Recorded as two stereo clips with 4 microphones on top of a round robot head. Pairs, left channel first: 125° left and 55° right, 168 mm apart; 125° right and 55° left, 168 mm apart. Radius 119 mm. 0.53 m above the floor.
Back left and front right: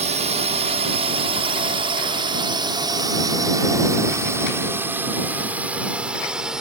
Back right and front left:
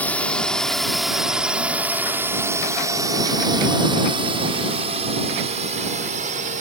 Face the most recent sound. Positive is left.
turn(degrees=30)